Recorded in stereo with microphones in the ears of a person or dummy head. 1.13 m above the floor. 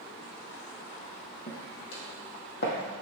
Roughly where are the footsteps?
Left.